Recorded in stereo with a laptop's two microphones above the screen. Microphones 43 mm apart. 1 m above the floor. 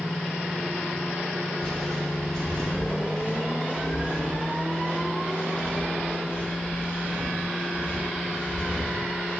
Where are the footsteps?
10° left (ahead or behind), 1.9 m; by 9.4 s 40° left (ahead or behind), 11.5 m.